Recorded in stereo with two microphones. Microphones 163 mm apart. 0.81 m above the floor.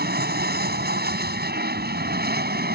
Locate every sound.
0.0 s an aircraft: 80° right; by 2.8 s 75° right (ahead or behind)